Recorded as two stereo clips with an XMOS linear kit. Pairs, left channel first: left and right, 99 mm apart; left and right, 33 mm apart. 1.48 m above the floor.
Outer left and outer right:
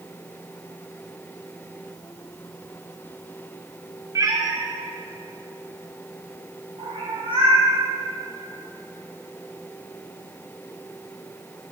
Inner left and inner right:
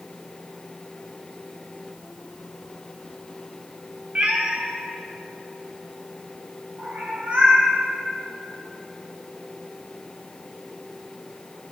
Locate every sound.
4.2 s a cat meowing: 35° right (ahead or behind), 0.9 m; by 7.7 s 65° right (ahead or behind), 3.5 m